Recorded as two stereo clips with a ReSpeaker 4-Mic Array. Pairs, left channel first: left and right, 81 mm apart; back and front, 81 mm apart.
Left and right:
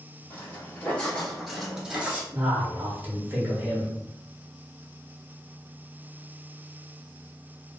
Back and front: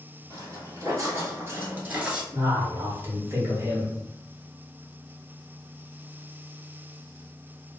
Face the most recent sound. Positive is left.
turn(degrees=-35)